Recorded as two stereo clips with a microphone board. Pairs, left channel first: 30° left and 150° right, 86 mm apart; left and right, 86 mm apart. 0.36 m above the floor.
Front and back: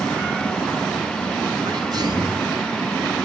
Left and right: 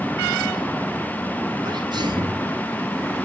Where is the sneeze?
115° right, 4 m.